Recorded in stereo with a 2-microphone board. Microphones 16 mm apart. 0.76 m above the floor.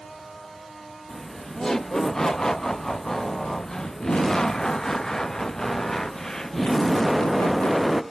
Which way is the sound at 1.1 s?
25° left (ahead or behind).